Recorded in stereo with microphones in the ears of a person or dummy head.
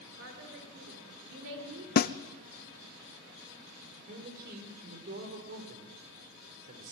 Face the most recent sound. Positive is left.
turn(degrees=-45)  # may be behind; listen again after turning